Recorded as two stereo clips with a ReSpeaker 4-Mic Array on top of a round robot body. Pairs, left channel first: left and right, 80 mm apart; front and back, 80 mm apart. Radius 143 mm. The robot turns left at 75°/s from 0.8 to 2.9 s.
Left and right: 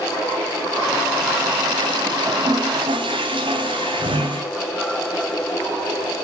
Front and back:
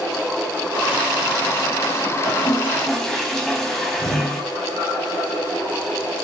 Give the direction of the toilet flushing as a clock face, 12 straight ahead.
1 o'clock.